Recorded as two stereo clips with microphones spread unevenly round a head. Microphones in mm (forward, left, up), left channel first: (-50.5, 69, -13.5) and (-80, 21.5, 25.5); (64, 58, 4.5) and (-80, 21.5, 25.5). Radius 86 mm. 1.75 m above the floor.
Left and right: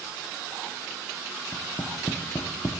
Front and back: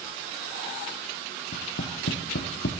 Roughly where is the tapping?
Ahead.